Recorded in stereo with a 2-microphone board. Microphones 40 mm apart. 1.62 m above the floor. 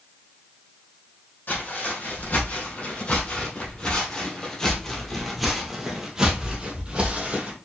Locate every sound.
1.5 s footsteps: 50° left (ahead or behind), 2.5 m; by 7.6 s 35° right (ahead or behind), 2.0 m